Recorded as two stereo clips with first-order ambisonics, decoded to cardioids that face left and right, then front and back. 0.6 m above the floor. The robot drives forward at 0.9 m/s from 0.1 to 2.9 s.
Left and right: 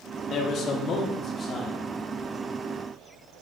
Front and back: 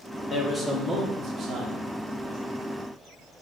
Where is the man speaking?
55° left, 1.1 m; by 1.8 s 150° left, 1.4 m.